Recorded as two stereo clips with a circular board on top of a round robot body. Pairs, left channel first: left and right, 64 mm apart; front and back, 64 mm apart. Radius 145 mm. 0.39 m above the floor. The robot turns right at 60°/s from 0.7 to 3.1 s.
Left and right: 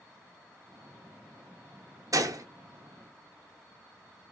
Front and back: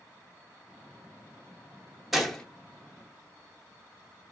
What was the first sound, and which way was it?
A gunshot, 95° right.